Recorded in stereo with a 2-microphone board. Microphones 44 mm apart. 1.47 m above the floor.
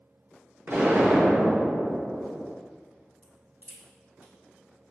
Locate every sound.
0.7 s an explosion: 50° right (ahead or behind), 1.3 m
3.2 s a crack: 40° right (ahead or behind), 2.0 m